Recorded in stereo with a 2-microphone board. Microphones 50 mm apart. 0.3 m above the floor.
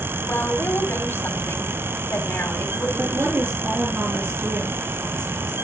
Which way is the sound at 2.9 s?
50° right (ahead or behind).